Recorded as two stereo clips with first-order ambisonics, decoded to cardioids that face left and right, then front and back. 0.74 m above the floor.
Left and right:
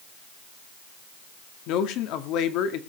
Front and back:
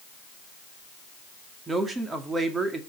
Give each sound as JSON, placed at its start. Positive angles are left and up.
{"t": 1.7, "sound": "a man speaking", "azimuth_deg": 105, "distance_m": 1.9}